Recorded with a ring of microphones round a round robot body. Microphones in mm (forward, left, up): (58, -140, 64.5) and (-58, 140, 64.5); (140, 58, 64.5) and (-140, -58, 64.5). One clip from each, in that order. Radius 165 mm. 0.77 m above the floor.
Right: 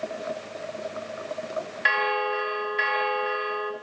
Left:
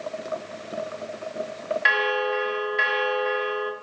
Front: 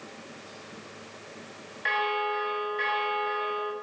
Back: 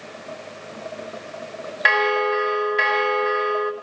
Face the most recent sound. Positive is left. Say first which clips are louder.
# left 2 dB, back 9 dB
turn(degrees=-165)